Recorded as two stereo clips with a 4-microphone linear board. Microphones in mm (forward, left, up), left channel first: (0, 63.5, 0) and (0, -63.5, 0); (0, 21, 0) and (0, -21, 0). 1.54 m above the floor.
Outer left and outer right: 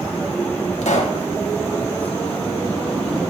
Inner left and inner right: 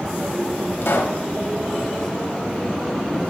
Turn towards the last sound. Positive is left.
turn(degrees=80)